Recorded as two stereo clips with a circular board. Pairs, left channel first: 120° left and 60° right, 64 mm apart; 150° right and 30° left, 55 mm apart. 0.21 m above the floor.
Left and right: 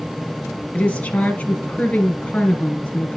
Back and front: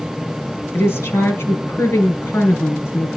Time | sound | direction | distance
0.7 | a woman speaking | 175° right | 3.5 m